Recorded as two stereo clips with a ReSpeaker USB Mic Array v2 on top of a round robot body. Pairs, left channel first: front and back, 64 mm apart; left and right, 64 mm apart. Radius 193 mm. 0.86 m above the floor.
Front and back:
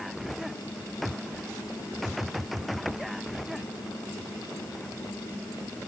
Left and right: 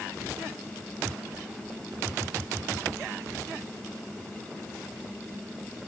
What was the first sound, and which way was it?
Only background noise.